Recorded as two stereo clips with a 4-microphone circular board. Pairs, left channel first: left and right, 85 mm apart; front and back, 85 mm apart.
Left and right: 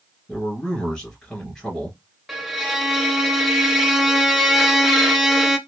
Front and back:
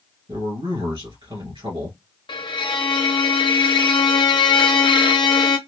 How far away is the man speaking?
About 1.8 m.